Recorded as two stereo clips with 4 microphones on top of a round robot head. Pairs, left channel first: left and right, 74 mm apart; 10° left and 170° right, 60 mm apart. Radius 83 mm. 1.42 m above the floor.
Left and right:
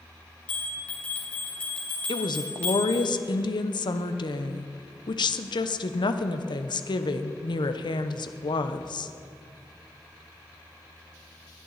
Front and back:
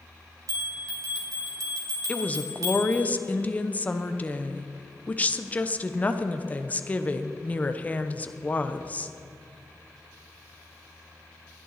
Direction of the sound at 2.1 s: 75° left.